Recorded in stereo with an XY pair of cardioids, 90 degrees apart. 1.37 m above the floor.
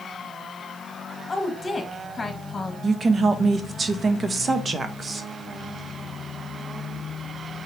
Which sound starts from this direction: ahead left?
A woman speaking, at 1.3 s.